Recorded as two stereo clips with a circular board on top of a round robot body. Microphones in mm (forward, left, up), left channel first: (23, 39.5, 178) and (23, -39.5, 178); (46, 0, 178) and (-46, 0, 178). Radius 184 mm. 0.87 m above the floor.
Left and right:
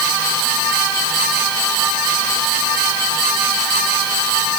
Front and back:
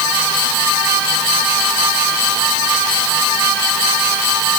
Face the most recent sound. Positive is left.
No sound to turn to.